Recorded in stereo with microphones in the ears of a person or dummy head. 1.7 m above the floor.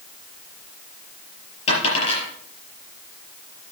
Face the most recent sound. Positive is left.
turn(degrees=35)  # may be behind; listen again after turning